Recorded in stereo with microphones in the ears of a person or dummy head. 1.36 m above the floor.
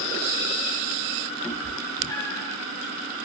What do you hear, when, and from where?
1.4 s a cat meowing: 15° left (ahead or behind), 3 m